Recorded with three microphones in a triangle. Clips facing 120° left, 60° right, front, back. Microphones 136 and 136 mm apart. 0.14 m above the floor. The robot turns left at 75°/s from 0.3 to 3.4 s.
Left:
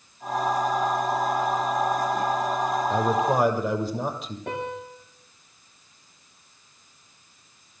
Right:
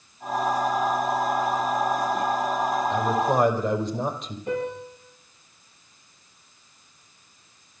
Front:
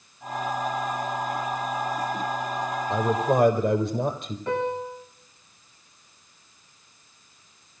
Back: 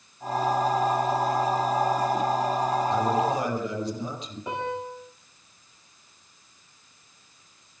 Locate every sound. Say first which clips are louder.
2.9 s a man speaking: left 2 dB, front 1 dB; 70° left, 3.5 m; by 4.4 s 30° left, 3.5 m
4.5 s a piano: right 4 dB, front 4 dB; 105° left, 9.5 m